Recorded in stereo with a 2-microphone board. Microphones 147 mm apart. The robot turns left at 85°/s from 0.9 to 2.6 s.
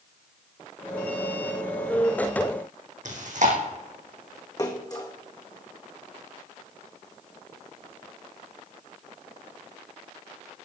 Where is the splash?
25° left (ahead or behind), 1.8 m.